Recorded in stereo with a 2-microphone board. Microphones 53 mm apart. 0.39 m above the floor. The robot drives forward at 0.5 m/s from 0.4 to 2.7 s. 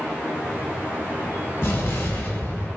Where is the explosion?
45° left (ahead or behind), 1.1 m.